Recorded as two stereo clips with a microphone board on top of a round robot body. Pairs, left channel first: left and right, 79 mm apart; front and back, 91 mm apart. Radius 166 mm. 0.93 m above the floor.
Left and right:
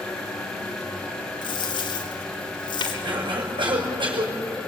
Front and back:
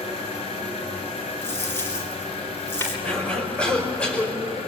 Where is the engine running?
10° left, 4 m.